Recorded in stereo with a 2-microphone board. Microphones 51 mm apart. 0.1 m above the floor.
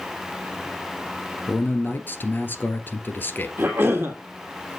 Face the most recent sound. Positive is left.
turn(degrees=-40)  # may be behind; listen again after turning